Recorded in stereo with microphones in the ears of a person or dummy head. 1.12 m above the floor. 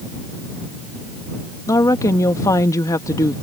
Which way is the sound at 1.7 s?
20° left (ahead or behind).